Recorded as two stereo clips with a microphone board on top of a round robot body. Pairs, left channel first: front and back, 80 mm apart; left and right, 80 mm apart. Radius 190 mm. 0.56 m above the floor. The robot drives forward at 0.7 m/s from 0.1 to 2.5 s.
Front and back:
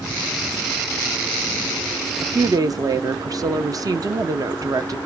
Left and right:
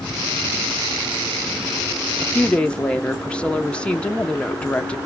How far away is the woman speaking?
About 0.7 m.